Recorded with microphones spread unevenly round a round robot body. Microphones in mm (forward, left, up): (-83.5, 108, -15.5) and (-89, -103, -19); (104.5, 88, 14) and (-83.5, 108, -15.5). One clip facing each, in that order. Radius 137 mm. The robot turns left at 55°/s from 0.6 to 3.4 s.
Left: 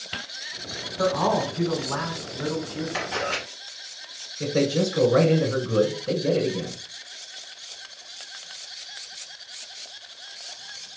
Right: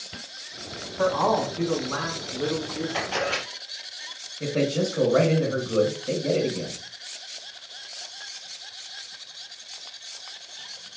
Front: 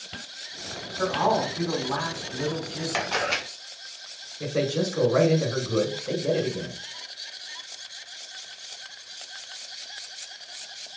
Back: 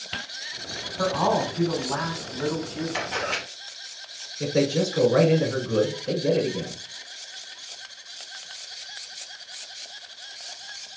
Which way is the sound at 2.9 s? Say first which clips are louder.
Right 1 dB, front 1 dB; 15° left.